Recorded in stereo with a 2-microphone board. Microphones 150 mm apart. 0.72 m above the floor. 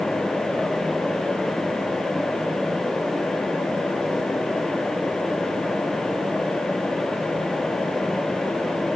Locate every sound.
Only background noise.